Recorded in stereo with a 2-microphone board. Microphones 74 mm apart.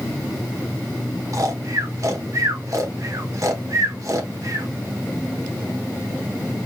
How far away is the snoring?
About 0.8 m.